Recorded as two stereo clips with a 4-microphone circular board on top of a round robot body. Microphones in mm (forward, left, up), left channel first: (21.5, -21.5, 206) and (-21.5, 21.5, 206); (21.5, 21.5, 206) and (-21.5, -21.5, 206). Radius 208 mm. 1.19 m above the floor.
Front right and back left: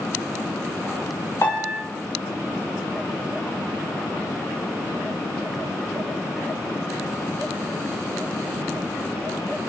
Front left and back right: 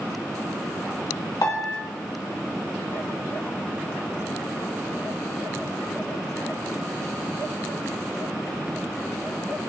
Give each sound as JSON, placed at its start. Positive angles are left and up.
{"t": 1.4, "sound": "a piano", "azimuth_deg": 5, "distance_m": 1.9}